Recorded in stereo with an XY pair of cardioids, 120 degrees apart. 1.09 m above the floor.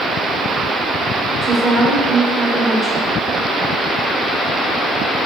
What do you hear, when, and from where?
1.4 s a woman speaking: straight ahead, 1.0 m